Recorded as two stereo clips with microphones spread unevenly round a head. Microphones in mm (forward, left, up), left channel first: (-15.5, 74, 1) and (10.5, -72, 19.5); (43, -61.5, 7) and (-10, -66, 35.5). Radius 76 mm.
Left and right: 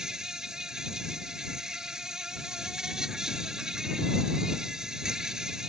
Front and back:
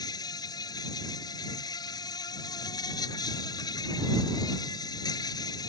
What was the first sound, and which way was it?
An insect, 5° left.